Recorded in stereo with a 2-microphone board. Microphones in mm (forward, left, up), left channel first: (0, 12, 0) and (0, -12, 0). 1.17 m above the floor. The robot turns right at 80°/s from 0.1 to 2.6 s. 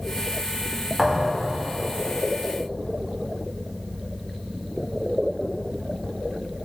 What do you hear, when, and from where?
1.0 s a thud: 5° right (ahead or behind), 0.9 m; by 1.5 s 25° right (ahead or behind), 0.9 m